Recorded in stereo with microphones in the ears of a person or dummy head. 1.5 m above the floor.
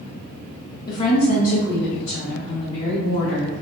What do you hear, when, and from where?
0.9 s a woman speaking: 20° left (ahead or behind), 0.7 m; by 3.5 s 60° left (ahead or behind), 1.3 m